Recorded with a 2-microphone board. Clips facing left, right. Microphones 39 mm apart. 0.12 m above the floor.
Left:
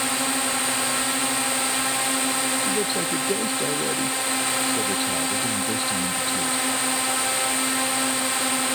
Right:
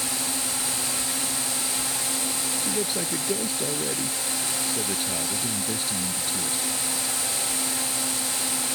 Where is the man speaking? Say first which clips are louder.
Left 4 dB; 10° left (ahead or behind).